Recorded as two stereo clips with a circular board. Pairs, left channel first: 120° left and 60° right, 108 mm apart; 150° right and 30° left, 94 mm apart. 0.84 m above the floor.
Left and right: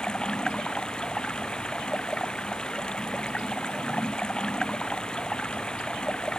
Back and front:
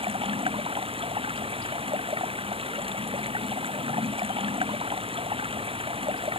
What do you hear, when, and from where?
0.0 s running water: 40° left